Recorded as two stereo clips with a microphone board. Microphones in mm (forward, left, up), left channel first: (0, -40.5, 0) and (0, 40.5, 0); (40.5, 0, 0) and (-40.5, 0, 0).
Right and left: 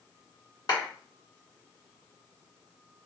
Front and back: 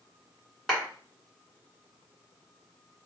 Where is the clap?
90° right, 2 m.